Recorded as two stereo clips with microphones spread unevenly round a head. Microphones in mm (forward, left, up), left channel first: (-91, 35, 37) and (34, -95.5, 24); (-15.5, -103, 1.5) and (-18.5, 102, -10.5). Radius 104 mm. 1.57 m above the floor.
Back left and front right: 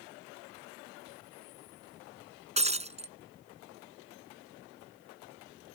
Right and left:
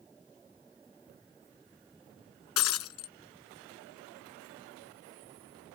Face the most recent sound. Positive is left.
turn(degrees=-100)